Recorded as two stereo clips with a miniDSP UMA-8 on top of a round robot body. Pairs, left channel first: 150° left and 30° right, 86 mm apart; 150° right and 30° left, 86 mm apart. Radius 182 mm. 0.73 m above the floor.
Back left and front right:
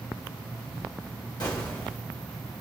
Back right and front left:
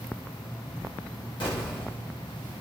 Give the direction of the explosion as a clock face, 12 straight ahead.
6 o'clock.